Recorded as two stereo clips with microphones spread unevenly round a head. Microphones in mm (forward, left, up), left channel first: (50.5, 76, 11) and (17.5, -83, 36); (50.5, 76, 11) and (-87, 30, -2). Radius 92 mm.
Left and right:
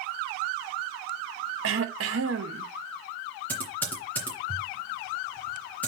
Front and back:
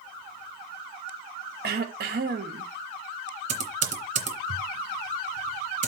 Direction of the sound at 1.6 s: 115° right.